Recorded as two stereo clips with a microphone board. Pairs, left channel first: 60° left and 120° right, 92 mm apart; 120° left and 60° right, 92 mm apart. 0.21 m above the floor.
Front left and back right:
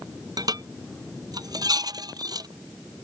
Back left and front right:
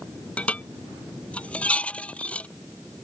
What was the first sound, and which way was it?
Dishes clattering, 165° right.